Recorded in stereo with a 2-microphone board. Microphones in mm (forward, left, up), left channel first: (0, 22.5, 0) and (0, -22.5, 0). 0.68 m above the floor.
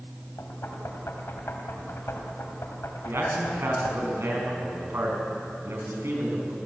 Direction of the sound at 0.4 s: 85° left.